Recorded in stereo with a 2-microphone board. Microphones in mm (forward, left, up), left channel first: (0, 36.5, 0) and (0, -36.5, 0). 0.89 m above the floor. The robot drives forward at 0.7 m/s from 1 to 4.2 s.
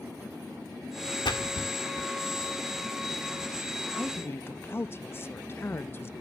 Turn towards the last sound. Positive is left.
turn(degrees=35)  # may be behind; listen again after turning